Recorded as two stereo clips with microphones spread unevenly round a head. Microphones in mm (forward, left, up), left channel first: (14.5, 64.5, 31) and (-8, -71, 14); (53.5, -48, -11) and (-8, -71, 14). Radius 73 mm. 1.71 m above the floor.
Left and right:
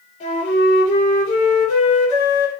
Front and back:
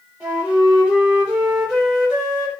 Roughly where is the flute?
Behind left.